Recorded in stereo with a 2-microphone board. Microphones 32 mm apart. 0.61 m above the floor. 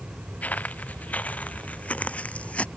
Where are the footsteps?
50° left (ahead or behind); by 2.7 s 40° left (ahead or behind).